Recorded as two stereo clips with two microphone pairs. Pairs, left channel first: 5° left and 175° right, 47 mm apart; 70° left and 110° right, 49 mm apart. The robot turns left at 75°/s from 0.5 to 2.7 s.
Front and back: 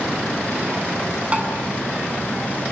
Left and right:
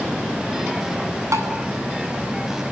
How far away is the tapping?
About 8 m.